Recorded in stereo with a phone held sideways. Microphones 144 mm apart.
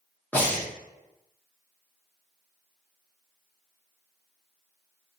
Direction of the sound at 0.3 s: 10° left (ahead or behind).